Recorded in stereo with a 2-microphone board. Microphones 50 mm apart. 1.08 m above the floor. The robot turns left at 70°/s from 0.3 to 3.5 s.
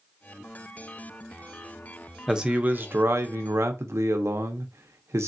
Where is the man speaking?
5° right, 0.6 m; by 5.3 s 95° right, 0.6 m.